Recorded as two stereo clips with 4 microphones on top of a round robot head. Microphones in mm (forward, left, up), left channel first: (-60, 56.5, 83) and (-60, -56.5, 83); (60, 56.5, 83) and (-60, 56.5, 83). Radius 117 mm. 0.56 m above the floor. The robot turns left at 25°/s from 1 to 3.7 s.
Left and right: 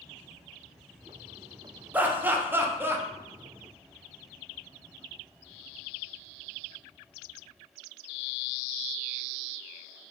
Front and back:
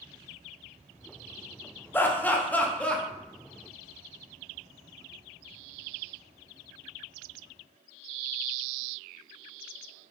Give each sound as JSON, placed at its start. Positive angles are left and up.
{"t": 1.9, "sound": "laughter", "azimuth_deg": -40, "distance_m": 0.8}